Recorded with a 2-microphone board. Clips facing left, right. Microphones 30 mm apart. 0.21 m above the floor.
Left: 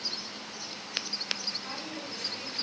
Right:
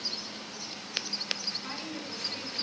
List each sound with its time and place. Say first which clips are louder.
1.6 s a woman speaking: even; 5° right (ahead or behind), 2.5 m